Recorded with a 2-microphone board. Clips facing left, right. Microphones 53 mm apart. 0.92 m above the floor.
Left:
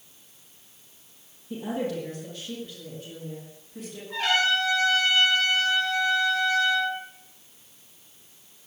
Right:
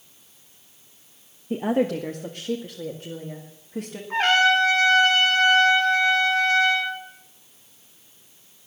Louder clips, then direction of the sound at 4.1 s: Right 6 dB; 40° right (ahead or behind).